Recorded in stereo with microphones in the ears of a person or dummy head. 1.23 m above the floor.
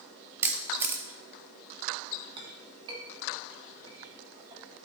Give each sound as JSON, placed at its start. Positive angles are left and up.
{"t": 0.4, "sound": "a camera shutter", "side_deg": -15, "distance_m": 0.7}
{"t": 2.4, "sound": "a clink", "side_deg": -25, "distance_m": 1.6}